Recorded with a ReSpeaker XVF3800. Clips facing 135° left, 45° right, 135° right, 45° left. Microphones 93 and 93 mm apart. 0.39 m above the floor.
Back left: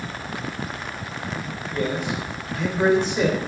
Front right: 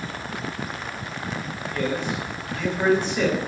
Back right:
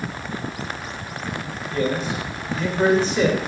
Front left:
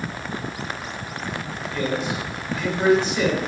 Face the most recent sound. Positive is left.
turn(degrees=-165)